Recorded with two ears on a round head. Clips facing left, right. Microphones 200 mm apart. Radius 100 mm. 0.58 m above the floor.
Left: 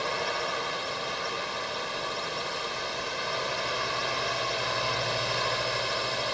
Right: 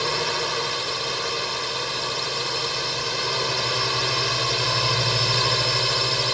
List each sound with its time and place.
0.0 s a drone: 60° right (ahead or behind)